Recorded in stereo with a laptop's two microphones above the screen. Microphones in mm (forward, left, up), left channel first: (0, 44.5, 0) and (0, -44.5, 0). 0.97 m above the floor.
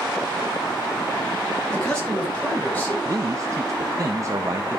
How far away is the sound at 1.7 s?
About 4.5 m.